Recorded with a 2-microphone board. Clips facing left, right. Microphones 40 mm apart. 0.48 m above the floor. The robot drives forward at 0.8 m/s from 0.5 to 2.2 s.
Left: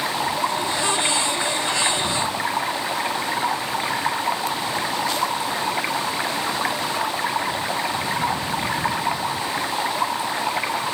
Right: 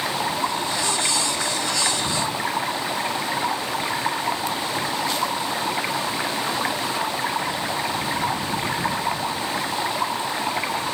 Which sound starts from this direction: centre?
Running water, at 0.0 s.